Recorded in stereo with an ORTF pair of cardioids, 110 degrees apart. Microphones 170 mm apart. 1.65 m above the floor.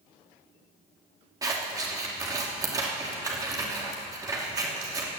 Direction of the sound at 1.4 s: 20° right.